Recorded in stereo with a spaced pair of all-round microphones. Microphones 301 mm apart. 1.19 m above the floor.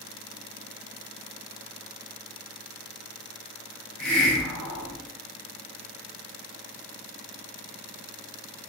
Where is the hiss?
80° left, 0.9 m.